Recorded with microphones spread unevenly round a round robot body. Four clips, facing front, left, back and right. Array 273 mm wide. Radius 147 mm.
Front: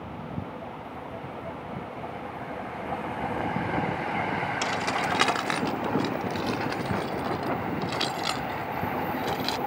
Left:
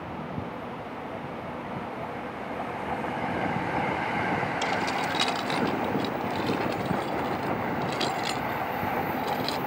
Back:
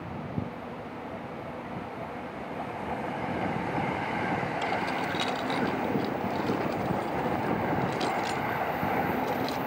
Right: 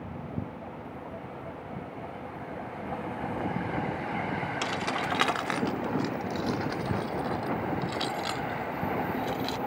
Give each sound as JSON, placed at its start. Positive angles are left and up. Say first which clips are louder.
{"t": 4.6, "sound": "keys jangling", "louder": "left 3 dB, front 2 dB", "azimuth_deg": -35}